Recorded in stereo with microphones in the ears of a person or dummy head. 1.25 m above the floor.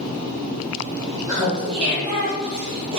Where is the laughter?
20° right (ahead or behind), 1.5 m; by 3.0 s 65° right (ahead or behind), 1.0 m.